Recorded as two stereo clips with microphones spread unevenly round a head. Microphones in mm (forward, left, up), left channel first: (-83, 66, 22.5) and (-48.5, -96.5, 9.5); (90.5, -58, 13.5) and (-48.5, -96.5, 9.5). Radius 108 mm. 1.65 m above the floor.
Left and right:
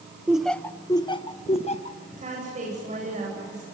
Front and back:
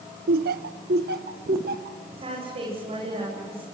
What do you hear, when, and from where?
0.3 s laughter: 160° right, 1.2 m; by 2.0 s 145° left, 2.5 m
2.2 s a woman speaking: 120° right, 9.5 m